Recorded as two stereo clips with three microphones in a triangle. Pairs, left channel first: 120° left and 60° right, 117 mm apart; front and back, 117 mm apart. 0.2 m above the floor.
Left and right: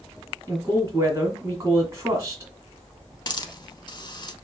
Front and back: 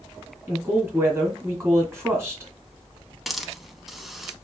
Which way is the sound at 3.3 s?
90° left.